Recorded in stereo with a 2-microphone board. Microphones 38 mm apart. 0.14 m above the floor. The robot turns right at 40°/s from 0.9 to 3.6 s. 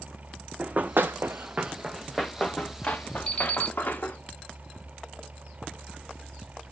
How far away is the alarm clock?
About 2.5 m.